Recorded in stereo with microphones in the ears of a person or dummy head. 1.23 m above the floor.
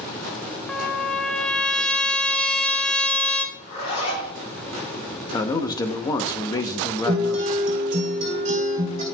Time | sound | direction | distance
0.7 | a trumpet | 5° left (ahead or behind) | 0.7 m
3.5 | a zipper | 70° left (ahead or behind) | 4 m
5.3 | a man speaking | 20° left (ahead or behind) | 0.7 m
7.0 | a guitar | 45° right (ahead or behind) | 2.5 m